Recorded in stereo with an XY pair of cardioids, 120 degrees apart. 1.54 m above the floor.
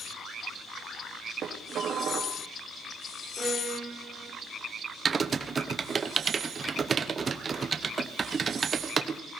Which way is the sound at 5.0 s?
30° right.